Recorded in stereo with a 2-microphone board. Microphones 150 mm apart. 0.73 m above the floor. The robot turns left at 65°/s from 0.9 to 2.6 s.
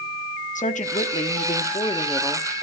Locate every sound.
0.6 s a woman speaking: 110° left, 1.1 m; by 2.5 s 5° left, 1.1 m